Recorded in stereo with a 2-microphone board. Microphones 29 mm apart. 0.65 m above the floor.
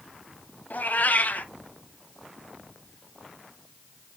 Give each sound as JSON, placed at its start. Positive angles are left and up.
{"t": 0.7, "sound": "a cat meowing", "side_deg": 70, "distance_m": 1.0}